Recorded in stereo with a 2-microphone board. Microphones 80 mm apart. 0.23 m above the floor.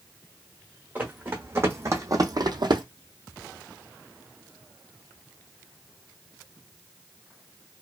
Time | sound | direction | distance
0.9 | running footsteps | 20° right (ahead or behind) | 1.1 m